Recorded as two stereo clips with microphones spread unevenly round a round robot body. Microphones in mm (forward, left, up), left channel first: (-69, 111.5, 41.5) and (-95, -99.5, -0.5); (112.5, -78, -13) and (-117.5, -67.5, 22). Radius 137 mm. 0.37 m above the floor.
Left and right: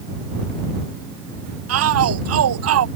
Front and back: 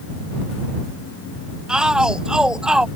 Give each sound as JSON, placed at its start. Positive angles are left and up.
{"t": 1.7, "sound": "a shout", "azimuth_deg": -95}